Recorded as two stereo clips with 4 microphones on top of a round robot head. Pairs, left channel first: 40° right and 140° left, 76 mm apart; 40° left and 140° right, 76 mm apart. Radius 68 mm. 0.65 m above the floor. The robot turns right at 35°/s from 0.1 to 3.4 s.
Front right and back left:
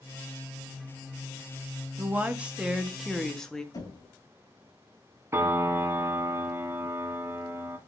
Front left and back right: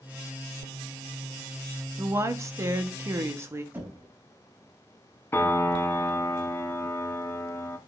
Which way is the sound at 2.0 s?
165° right.